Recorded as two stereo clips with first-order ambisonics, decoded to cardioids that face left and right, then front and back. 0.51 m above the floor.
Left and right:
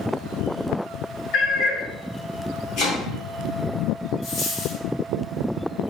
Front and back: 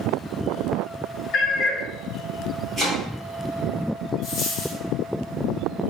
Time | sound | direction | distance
1.3 | a cat meowing | 55° left | 0.7 m
2.8 | chopping | 100° left | 1.0 m
4.2 | a dropped coin | 45° left | 1.1 m